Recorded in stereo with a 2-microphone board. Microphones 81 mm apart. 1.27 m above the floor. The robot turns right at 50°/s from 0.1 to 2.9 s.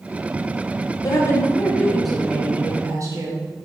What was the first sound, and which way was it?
A woman speaking, 130° left.